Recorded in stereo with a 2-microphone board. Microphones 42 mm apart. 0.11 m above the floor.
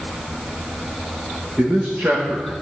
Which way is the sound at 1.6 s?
30° right (ahead or behind).